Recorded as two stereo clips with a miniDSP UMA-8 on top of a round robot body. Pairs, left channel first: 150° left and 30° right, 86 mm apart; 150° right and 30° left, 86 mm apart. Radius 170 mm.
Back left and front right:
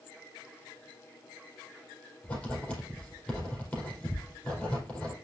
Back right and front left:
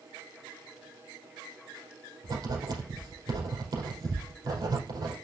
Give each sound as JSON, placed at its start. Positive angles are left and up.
{"t": 2.2, "sound": "writing", "azimuth_deg": 75, "distance_m": 5.0}